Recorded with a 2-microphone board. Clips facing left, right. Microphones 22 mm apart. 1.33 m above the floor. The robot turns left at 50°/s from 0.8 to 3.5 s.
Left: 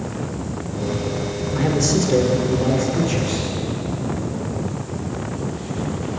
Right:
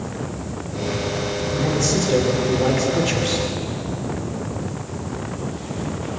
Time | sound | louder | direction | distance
1.6 | a man speaking | left 2 dB | 25° left | 4 m